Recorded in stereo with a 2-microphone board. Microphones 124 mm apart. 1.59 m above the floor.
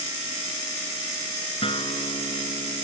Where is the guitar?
45° left (ahead or behind).